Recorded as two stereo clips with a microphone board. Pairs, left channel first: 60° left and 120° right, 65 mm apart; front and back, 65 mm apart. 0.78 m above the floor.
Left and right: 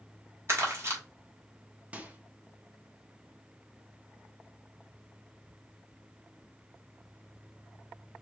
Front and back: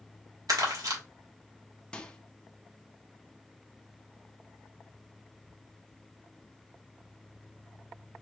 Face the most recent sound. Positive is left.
turn(degrees=-65)